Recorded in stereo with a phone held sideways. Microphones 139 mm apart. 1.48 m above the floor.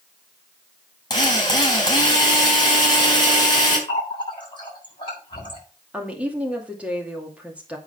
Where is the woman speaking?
10° right (ahead or behind), 2.5 m.